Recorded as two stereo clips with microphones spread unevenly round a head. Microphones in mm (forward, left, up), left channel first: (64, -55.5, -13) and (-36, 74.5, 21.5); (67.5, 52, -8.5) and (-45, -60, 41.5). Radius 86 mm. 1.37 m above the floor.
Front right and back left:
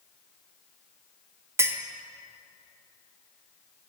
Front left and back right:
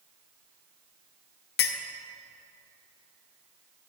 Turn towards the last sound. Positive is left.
turn(degrees=75)